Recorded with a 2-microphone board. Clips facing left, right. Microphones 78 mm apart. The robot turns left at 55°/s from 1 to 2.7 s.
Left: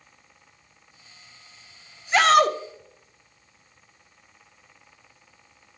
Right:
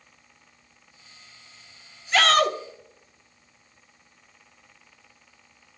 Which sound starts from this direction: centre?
A shout, at 2.1 s.